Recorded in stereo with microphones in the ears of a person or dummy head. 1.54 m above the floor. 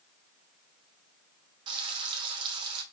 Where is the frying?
30° right (ahead or behind), 0.9 m.